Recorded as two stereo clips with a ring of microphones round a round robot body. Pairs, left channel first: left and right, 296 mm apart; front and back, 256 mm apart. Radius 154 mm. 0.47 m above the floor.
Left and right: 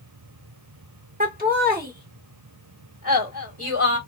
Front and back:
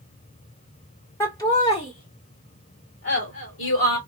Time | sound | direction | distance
1.2 | laughter | 70° right | 1.3 m